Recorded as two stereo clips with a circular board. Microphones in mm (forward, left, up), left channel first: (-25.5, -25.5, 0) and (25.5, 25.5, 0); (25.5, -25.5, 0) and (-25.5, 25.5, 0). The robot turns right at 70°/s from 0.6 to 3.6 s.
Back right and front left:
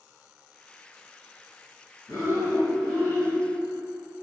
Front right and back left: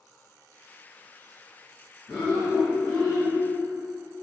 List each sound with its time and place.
2.1 s breathing: 155° right, 1.6 m; by 3.3 s 65° right, 1.6 m